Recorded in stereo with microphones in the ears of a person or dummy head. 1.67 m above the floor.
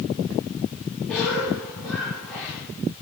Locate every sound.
1.1 s a cough: centre (ahead or behind), 4.5 m